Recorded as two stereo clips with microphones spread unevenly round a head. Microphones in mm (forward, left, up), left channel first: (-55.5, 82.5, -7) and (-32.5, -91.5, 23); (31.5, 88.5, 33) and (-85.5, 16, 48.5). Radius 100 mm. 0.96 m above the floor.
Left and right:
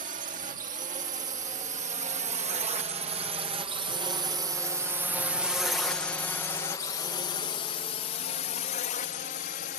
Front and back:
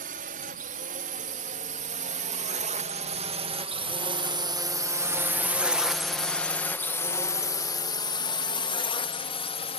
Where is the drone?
125° right; by 9.8 s 65° left.